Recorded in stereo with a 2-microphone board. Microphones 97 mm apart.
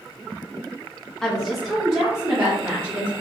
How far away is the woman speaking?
About 0.7 m.